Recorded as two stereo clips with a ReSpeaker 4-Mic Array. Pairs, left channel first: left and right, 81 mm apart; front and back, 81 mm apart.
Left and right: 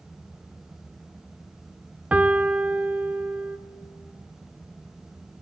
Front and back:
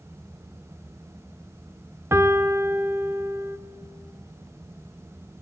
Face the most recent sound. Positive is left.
turn(degrees=-155)